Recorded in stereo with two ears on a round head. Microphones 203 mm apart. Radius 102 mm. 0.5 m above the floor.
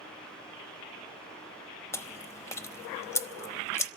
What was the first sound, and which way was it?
Chewing, 15° left (ahead or behind).